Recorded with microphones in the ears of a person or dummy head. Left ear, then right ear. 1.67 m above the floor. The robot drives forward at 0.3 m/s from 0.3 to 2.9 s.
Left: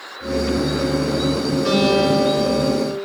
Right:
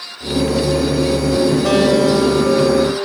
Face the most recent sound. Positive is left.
turn(degrees=-20)  # may be behind; listen again after turning